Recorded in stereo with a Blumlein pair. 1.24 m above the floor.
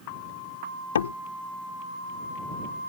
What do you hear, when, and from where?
0.9 s a door slam: 65° left